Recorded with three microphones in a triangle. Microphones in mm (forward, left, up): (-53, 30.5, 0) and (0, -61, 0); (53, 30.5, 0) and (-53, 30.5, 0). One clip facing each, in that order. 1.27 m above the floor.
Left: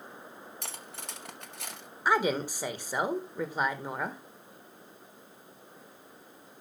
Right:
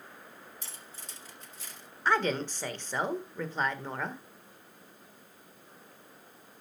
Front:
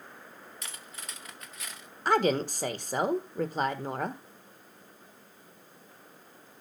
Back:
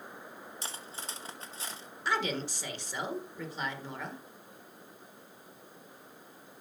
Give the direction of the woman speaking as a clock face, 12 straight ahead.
11 o'clock.